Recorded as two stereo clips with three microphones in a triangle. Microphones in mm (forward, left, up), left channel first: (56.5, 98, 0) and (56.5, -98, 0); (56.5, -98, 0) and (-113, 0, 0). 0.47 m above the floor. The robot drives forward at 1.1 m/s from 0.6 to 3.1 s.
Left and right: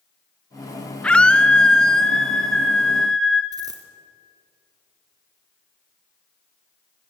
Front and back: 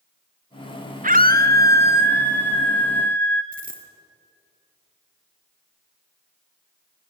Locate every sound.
1.0 s a scream: 170° left, 1.5 m; by 3.4 s 175° left, 3.5 m
3.5 s a dropped coin: 160° right, 3.5 m